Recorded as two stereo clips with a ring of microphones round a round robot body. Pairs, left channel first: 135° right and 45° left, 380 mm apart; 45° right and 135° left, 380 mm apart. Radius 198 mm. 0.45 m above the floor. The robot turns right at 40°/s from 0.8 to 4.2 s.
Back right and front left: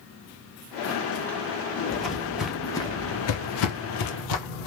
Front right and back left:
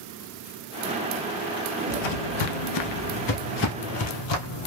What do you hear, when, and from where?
1.9 s footsteps: 50° right, 0.9 m; by 4.7 s 95° right, 1.3 m